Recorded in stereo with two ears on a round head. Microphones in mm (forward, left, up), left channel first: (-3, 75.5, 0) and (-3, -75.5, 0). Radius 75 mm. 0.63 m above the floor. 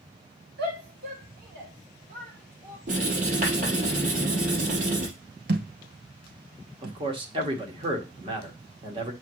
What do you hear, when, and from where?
0.6 s a shout: 65° right (ahead or behind), 3.5 m; by 2.8 s 35° right (ahead or behind), 3.5 m
2.9 s writing: 50° right (ahead or behind), 4 m
5.5 s a thud: 60° right (ahead or behind), 1.3 m
6.8 s a man speaking: 30° right (ahead or behind), 1.7 m